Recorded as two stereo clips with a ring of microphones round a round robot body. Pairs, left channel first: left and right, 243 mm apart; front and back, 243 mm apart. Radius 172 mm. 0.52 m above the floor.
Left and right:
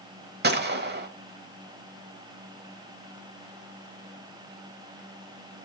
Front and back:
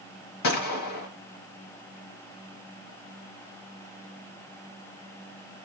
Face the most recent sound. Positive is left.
turn(degrees=-40)